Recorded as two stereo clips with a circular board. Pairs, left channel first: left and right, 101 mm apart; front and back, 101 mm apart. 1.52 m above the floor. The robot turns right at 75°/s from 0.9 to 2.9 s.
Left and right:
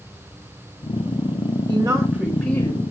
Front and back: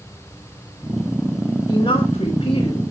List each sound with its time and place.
1.7 s a woman speaking: 50° right, 5.5 m; by 2.8 s 35° left, 5.5 m